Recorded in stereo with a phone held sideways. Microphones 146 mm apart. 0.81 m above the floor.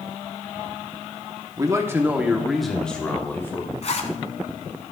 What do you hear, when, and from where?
1.6 s a man speaking: 25° right (ahead or behind), 1.1 m; by 3.7 s 20° left (ahead or behind), 1.7 m
3.8 s a zipper: 50° left (ahead or behind), 1.2 m